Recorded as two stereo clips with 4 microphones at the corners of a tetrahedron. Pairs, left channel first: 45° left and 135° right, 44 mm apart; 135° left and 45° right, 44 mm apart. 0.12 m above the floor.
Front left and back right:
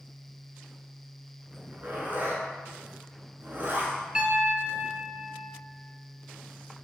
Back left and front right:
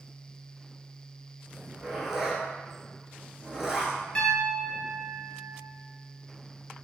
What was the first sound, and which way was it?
A zipper, 120° right.